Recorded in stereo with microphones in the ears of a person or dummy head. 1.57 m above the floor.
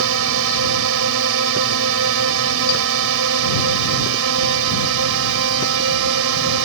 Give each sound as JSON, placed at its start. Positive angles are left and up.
{"t": 0.0, "sound": "a drone", "side_deg": -75}